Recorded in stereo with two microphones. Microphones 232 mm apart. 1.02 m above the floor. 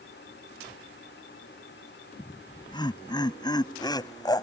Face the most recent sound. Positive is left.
turn(degrees=15)  # may be behind; listen again after turning